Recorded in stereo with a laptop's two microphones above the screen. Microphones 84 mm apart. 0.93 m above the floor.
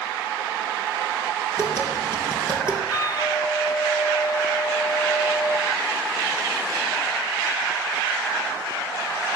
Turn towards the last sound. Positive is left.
turn(degrees=60)  # may be behind; listen again after turning